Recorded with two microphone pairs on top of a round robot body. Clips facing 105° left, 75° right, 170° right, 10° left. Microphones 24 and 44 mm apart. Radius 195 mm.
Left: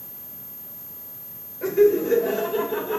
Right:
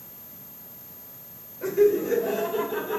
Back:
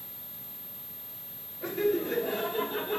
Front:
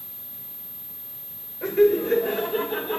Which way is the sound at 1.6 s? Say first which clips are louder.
Left 3 dB, front 9 dB; 35° left.